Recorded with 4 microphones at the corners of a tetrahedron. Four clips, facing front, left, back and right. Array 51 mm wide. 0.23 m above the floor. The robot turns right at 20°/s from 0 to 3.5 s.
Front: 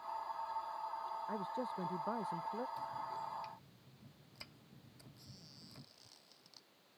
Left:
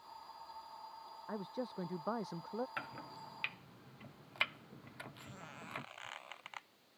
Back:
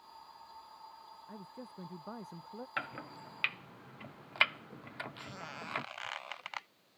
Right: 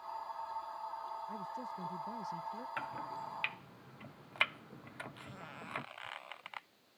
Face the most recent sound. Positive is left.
turn(degrees=-170)